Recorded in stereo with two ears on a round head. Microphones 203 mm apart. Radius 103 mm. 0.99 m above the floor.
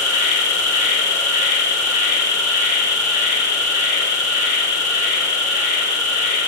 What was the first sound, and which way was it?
An insect, 35° left (ahead or behind).